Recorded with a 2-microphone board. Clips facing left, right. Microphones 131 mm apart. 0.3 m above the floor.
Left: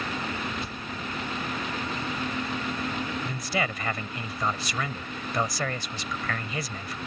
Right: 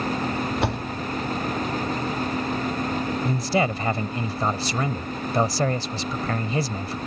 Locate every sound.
0.6 s a door slam: 75° right (ahead or behind)
3.2 s a man speaking: 35° right (ahead or behind)